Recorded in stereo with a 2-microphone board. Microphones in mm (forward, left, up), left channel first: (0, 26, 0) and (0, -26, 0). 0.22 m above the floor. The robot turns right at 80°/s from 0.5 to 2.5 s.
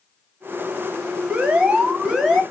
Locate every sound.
1.3 s an alarm: 25° right (ahead or behind), 0.9 m; by 2.4 s centre (ahead or behind), 0.9 m